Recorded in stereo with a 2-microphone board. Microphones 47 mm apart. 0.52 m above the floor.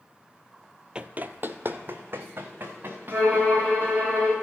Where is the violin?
25° right (ahead or behind), 5 m.